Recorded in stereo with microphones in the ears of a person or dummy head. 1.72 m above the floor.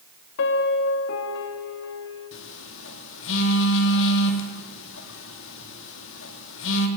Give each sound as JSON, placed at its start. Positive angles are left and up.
{"t": 0.4, "sound": "a piano", "side_deg": 65, "distance_m": 2.5}
{"t": 2.3, "sound": "a phone buzzing", "side_deg": 75, "distance_m": 3.5}